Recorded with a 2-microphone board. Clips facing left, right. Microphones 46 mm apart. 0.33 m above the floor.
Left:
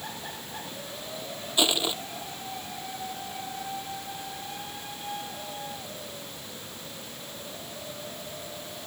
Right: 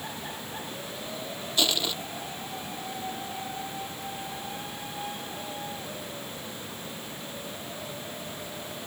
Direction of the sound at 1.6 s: 20° left (ahead or behind).